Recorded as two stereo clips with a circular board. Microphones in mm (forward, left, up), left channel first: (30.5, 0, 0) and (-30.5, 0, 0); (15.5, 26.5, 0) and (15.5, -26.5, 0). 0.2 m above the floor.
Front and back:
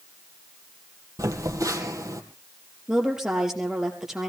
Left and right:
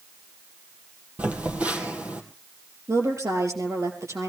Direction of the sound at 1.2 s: 155° right.